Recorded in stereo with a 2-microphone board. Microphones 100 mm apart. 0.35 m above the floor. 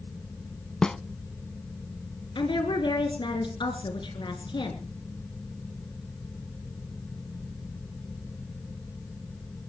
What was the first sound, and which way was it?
A snare drum, 5° left (ahead or behind).